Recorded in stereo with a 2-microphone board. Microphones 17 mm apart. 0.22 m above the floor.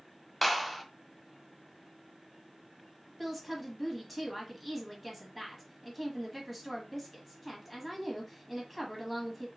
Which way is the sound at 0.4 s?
5° left (ahead or behind).